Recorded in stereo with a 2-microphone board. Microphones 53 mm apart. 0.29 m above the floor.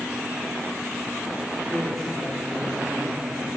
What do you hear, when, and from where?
1.7 s a woman speaking: centre (ahead or behind), 10 m